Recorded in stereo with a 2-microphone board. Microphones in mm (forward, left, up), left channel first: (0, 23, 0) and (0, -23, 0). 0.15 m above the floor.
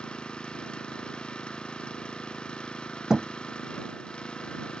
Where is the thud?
15° right (ahead or behind).